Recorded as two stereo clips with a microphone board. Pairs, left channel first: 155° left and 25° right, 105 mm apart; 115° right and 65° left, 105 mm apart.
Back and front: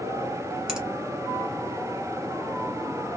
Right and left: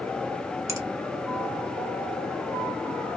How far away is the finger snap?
About 0.9 m.